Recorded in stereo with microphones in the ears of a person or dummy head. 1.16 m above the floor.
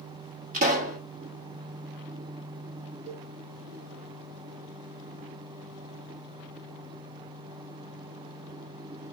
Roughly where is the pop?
Right.